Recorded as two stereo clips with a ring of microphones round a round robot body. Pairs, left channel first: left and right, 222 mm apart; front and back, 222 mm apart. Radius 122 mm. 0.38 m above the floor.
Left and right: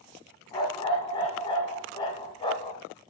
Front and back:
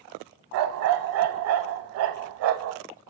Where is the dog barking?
160° left, 0.6 m.